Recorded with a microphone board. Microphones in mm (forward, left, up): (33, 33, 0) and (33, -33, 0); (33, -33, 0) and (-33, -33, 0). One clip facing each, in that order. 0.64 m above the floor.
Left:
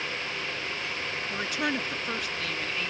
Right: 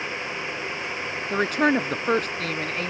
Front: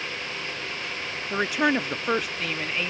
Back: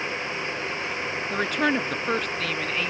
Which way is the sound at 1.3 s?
80° right.